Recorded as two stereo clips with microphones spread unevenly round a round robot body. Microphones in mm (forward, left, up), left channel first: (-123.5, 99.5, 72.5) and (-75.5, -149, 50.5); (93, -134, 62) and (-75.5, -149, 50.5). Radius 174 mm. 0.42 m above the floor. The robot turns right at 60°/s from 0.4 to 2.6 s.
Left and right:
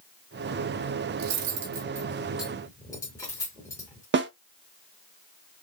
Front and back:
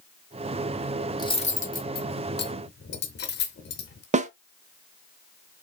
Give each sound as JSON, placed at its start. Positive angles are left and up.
{"t": 1.2, "sound": "cutlery clinking", "azimuth_deg": -65, "distance_m": 0.9}
{"t": 4.1, "sound": "a snare drum", "azimuth_deg": -125, "distance_m": 0.7}